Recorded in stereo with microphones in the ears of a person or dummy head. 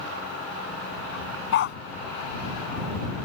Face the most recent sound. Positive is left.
turn(degrees=70)  # may be behind; listen again after turning